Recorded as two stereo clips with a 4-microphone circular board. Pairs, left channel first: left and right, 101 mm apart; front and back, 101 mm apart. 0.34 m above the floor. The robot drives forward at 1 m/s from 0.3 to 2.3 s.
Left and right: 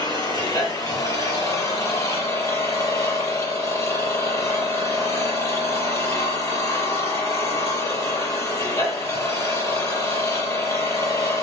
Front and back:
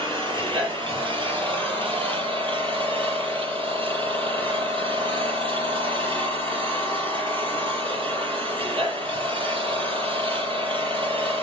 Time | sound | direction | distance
0.0 | an engine running | 140° left | 7.5 m